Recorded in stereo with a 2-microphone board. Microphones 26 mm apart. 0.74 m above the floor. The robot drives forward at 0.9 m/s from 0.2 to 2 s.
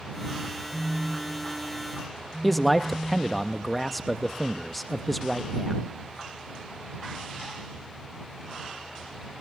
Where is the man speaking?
5° left (ahead or behind), 0.5 m.